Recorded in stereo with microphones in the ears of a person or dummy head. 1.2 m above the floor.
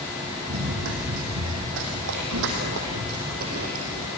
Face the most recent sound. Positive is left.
turn(degrees=-40)  # may be behind; listen again after turning